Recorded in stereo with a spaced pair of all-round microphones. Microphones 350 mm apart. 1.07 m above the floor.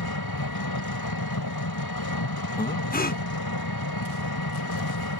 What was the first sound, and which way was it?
An engine running, 80° left.